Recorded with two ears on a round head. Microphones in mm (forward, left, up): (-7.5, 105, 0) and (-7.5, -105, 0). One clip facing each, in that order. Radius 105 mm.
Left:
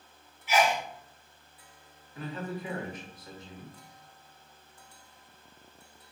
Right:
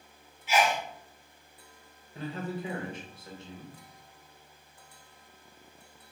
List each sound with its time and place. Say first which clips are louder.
0.5 s a sneeze: left 1 dB; 20° right (ahead or behind), 1.0 m
2.1 s a man speaking: right 1 dB; 25° right (ahead or behind), 0.9 m